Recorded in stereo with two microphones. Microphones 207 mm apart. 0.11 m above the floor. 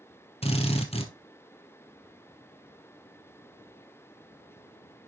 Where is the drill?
30° left (ahead or behind), 2 m.